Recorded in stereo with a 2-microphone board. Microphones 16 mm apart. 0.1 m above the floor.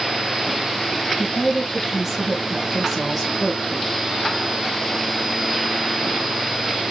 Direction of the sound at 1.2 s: 15° right (ahead or behind).